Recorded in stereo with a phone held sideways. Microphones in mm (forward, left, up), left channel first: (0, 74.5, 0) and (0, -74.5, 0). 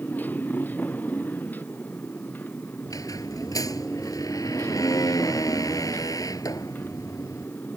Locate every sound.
0.0 s a motorcycle: 10° left (ahead or behind)
2.9 s a squeak: 25° left (ahead or behind)